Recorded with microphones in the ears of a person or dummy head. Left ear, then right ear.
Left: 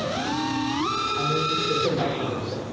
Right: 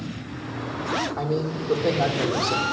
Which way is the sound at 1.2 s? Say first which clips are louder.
Left 4 dB; 75° right (ahead or behind).